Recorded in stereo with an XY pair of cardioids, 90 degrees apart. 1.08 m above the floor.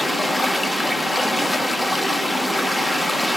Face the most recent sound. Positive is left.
turn(degrees=10)